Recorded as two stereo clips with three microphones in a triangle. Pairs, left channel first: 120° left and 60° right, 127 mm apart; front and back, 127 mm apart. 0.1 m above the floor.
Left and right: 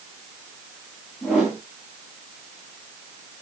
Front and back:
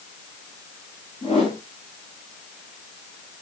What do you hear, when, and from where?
1.2 s a whoosh: 30° left, 8.5 m